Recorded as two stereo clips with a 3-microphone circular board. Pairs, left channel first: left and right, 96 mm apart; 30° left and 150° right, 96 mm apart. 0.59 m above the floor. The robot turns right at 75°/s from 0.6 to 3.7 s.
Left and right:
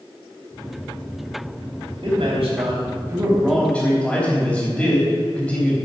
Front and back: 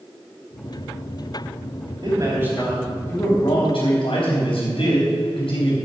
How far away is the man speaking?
About 3.5 m.